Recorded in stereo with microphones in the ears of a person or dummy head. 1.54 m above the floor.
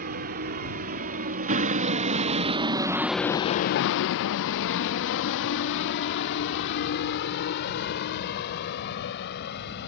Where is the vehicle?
50° right (ahead or behind); by 9.9 s 60° left (ahead or behind).